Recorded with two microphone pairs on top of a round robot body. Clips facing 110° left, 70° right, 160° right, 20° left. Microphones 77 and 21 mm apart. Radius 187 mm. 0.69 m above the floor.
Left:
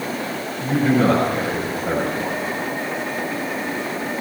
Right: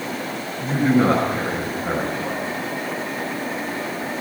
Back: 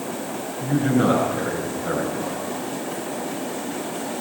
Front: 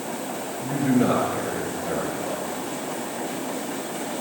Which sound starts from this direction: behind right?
A man speaking, at 0.6 s.